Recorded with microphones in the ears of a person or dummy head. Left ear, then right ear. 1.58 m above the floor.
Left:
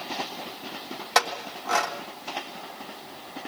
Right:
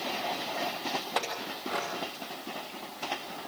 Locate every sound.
1.1 s a clink: 65° left (ahead or behind), 3 m